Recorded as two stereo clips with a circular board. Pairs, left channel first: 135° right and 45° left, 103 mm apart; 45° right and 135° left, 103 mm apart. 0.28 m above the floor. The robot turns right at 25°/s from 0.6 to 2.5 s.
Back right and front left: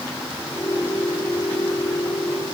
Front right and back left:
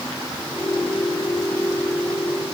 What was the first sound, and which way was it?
Only background noise.